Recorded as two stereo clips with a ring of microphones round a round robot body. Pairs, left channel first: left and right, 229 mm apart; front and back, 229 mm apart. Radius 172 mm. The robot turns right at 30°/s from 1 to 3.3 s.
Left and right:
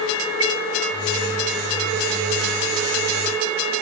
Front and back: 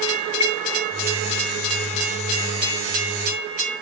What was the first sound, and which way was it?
A chime, 40° right.